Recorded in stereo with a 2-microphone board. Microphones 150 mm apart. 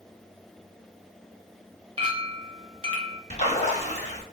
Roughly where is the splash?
Left.